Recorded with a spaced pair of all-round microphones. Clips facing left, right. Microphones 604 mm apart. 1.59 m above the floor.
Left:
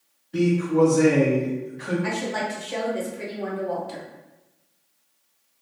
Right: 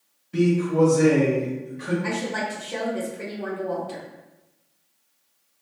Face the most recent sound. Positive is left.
turn(degrees=10)  # may be behind; listen again after turning